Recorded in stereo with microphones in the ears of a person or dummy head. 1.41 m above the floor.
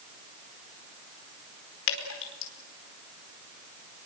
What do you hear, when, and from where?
1.9 s dripping: 80° left, 4.5 m